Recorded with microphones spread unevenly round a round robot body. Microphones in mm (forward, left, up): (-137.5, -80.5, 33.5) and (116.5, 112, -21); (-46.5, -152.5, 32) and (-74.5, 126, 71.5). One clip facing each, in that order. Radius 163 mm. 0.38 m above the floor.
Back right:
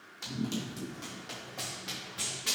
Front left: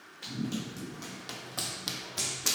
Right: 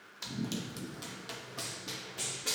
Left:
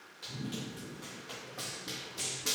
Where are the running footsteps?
80° right, 1.0 m; by 2.5 s 35° left, 1.0 m.